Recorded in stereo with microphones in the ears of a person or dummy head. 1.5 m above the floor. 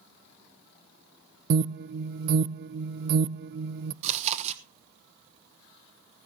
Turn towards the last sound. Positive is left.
turn(degrees=-40)  # may be behind; listen again after turning